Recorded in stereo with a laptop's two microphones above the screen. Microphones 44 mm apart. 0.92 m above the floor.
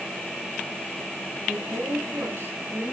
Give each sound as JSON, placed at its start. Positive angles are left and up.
{"t": 1.4, "sound": "a woman speaking", "side_deg": -65, "distance_m": 5.5}